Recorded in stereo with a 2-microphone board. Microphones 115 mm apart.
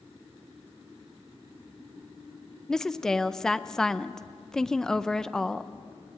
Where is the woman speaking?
5° left (ahead or behind), 0.5 m.